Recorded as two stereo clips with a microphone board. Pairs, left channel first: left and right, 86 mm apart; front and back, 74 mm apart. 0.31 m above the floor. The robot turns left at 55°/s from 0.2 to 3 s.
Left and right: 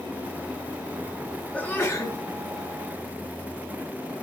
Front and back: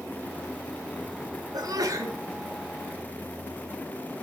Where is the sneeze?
165° left, 2.5 m; by 2.2 s 130° left, 2.5 m.